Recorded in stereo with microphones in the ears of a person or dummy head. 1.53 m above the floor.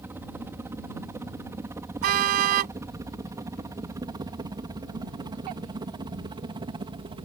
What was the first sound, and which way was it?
A helicopter, 10° right (ahead or behind).